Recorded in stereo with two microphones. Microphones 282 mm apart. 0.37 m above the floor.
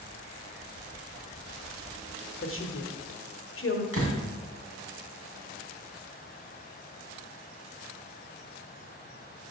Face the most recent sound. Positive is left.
turn(degrees=-55)  # may be behind; listen again after turning